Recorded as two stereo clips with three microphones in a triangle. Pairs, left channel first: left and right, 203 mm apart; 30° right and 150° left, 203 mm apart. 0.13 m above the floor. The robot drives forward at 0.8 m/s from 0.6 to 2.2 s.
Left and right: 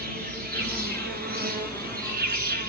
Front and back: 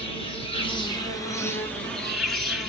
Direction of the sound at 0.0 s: 85° right.